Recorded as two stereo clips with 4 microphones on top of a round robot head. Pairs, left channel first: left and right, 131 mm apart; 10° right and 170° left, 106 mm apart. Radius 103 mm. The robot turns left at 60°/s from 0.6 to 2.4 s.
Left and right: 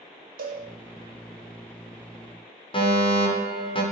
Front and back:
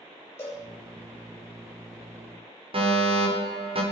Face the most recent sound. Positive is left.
turn(degrees=140)